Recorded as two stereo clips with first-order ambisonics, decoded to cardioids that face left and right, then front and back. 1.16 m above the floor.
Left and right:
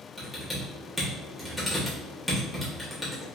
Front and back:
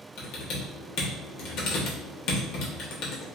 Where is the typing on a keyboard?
10° right, 0.8 m.